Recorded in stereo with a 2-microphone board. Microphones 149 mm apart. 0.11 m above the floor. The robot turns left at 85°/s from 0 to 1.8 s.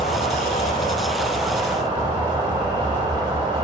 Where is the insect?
125° left, 1.5 m; by 3.6 s 30° right, 1.5 m.